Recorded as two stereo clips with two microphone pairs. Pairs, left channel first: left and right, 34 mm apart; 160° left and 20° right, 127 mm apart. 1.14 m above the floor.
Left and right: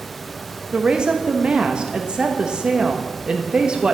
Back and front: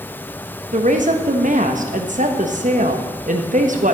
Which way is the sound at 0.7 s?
30° right.